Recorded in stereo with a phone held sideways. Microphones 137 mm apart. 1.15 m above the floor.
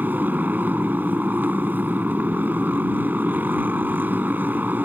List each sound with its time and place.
0.0 s a motorcycle: 15° right (ahead or behind)